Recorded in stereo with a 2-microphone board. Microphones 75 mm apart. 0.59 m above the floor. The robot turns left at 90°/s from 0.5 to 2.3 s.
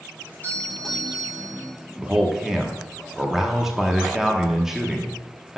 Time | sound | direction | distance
0.2 | a doorbell | 45° left | 2.0 m
2.0 | a man speaking | 20° right (ahead or behind) | 0.8 m